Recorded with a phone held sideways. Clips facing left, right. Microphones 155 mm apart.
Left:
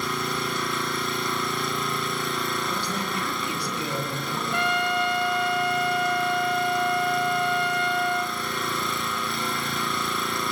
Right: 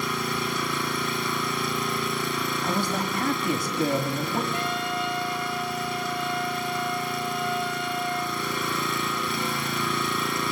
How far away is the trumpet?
About 0.6 m.